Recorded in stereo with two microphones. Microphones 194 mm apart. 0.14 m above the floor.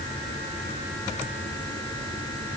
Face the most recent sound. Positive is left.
No sound to turn to.